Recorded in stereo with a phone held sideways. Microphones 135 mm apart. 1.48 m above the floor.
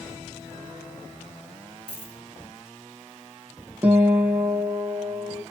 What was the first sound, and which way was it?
A dropped coin, 40° left (ahead or behind).